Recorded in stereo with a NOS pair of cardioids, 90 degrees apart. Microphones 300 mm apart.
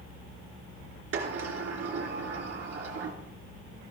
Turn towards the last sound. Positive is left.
turn(degrees=-50)